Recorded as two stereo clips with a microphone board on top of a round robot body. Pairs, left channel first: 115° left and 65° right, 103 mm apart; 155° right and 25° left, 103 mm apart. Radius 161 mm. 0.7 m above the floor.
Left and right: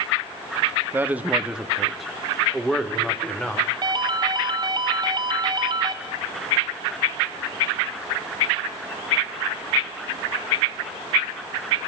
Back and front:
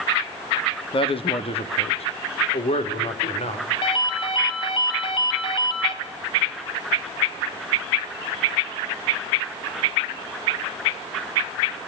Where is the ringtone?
115° right, 3 m.